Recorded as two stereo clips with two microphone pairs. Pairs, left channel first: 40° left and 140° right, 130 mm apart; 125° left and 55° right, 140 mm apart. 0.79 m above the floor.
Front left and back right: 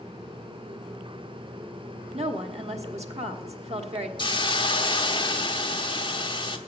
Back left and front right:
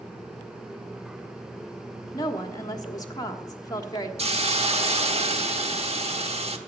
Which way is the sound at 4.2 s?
10° right.